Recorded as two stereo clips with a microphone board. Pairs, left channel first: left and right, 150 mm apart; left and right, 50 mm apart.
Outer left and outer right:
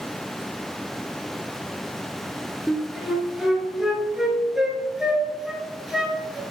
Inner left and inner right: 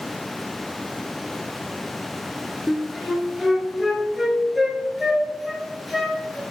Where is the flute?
5° right (ahead or behind), 1.1 m.